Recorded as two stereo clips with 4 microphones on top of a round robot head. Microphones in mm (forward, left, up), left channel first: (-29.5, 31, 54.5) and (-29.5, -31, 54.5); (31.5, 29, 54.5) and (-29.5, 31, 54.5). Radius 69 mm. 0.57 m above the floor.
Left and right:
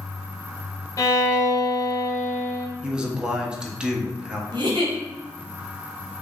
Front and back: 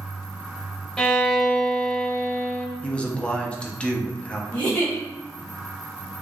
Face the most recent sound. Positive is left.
turn(degrees=-80)